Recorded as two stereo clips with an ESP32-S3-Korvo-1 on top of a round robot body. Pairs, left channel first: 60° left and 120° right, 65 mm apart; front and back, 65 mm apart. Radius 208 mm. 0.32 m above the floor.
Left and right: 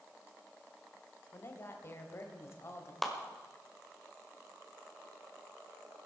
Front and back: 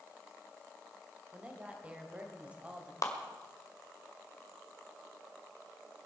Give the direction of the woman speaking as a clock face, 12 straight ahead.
8 o'clock.